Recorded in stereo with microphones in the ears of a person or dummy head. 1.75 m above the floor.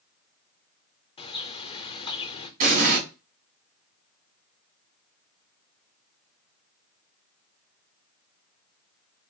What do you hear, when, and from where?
1.2 s a bird: 35° left (ahead or behind), 0.6 m
2.6 s an explosion: 50° right (ahead or behind), 3 m